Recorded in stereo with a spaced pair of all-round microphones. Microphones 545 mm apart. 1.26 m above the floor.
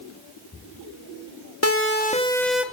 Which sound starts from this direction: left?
A siren, at 1.6 s.